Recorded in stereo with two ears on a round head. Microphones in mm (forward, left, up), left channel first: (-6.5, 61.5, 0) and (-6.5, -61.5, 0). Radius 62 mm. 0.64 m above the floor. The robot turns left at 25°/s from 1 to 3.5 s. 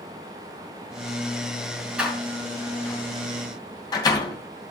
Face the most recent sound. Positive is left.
turn(degrees=30)  # may be behind; listen again after turning